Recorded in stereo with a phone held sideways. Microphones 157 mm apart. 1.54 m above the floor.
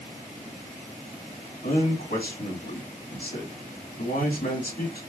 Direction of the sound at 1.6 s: 80° left.